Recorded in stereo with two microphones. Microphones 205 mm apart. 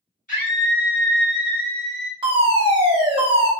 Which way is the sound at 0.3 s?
40° left (ahead or behind).